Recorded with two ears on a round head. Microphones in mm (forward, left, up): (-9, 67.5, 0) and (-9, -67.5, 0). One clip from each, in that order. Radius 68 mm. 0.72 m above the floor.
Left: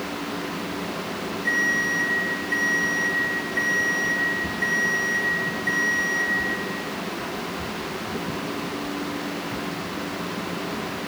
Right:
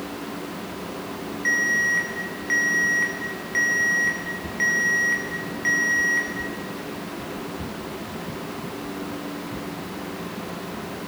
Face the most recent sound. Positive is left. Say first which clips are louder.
# right 2 dB
turn(degrees=-50)  # may be behind; listen again after turning